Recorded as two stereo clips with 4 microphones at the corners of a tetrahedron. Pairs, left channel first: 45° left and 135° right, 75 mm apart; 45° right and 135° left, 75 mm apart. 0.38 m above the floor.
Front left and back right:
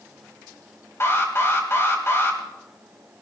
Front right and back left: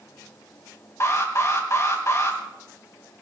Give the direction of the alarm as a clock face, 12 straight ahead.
12 o'clock.